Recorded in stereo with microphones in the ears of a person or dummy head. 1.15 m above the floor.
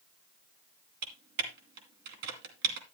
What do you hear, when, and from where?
1.0 s typing on a keyboard: 60° right (ahead or behind), 2.5 m